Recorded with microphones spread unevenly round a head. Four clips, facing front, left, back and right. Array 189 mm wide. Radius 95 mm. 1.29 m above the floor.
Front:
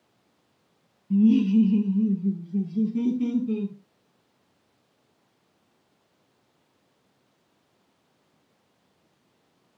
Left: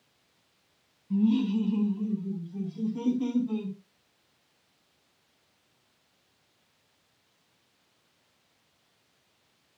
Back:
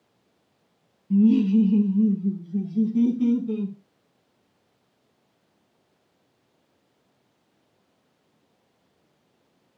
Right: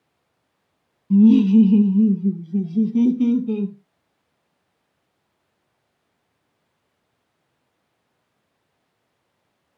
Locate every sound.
1.1 s laughter: 95° right, 0.6 m; by 3.8 s 90° right, 1.9 m